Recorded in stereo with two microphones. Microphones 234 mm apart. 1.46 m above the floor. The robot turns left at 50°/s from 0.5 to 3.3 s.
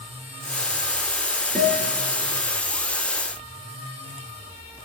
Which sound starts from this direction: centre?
A guitar, at 1.6 s.